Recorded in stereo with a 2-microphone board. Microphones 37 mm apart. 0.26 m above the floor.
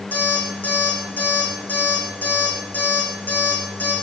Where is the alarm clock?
50° left (ahead or behind), 8.5 m.